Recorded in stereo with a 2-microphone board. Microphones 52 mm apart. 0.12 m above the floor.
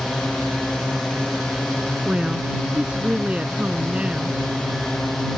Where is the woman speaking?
20° right (ahead or behind).